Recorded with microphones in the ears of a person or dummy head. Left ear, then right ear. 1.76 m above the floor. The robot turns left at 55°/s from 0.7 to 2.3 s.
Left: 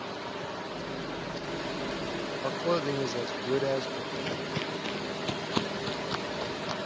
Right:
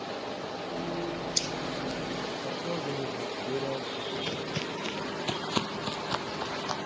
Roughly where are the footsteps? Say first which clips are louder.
Even; centre.